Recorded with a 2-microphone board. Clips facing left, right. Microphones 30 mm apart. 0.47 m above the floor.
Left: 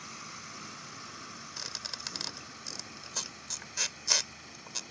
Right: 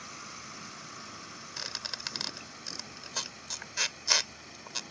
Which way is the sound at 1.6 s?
20° right (ahead or behind).